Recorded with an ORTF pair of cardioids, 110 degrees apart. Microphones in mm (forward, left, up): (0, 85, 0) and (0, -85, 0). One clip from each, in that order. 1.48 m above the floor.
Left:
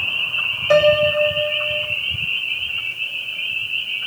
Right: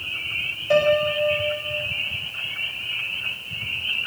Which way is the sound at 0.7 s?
50° left.